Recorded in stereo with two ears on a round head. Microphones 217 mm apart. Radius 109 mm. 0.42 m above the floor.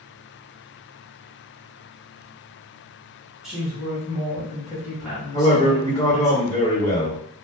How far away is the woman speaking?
About 1.2 m.